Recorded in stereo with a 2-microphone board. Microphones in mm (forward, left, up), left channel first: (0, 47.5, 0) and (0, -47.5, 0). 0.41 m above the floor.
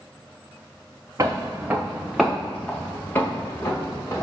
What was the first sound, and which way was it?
Footsteps, 35° right (ahead or behind).